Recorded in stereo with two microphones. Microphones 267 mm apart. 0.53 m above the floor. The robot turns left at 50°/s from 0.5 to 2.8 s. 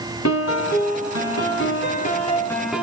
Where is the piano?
110° left, 1.7 m; by 2.8 s 5° right, 1.7 m.